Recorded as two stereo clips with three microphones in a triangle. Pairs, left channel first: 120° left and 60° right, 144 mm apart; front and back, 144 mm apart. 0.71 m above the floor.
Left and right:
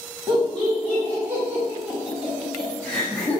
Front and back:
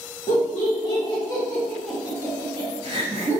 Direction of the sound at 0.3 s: Straight ahead.